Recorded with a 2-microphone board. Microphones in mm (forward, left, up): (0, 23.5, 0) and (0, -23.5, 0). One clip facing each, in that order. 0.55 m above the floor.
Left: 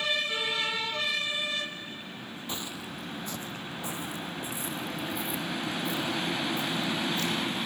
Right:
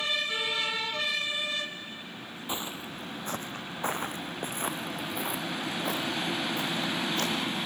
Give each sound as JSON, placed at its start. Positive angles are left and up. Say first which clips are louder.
{"t": 2.5, "sound": "footsteps", "louder": "right 3 dB", "side_deg": -20, "distance_m": 0.7}